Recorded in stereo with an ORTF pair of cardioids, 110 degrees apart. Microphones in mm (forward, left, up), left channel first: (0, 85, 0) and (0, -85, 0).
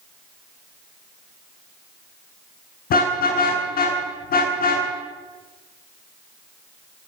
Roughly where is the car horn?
Ahead left.